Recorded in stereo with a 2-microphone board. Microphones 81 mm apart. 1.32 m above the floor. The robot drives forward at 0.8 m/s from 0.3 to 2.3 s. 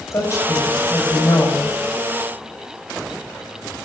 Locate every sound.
0.1 s a woman speaking: 40° left (ahead or behind), 6.5 m; by 1.8 s 45° left (ahead or behind), 5.5 m